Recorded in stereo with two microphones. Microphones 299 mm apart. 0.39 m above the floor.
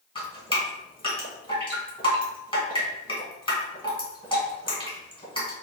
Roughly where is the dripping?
Centre.